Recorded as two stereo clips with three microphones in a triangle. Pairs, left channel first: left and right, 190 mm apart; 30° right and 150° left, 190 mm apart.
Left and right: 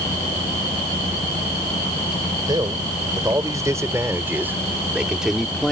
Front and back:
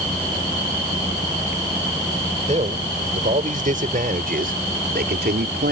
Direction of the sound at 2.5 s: 160° right.